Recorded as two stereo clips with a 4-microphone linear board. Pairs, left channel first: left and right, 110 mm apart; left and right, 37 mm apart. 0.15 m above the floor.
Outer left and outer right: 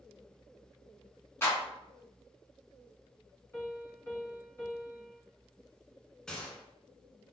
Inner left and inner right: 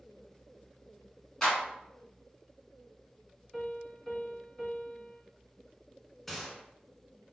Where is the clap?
20° left (ahead or behind), 1.5 m.